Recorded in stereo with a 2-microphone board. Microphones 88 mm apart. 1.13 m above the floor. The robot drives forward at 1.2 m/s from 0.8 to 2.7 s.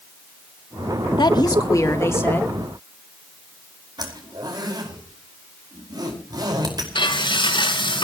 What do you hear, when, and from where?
1.2 s a woman speaking: 65° left (ahead or behind), 1.1 m; by 2.6 s 25° left (ahead or behind), 2.5 m
4.0 s a zipper: 55° right (ahead or behind), 5.5 m
7.0 s frying: 75° left (ahead or behind), 7.5 m